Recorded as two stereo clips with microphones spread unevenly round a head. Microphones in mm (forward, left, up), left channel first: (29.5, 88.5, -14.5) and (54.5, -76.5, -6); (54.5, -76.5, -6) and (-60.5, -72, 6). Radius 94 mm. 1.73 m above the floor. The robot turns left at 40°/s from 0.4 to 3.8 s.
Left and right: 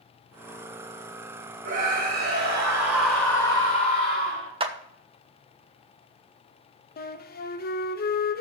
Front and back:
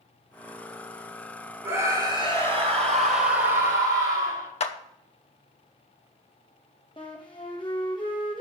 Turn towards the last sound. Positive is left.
turn(degrees=65)